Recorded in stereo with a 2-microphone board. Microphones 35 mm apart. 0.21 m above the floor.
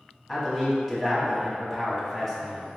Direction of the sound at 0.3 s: Centre (ahead or behind).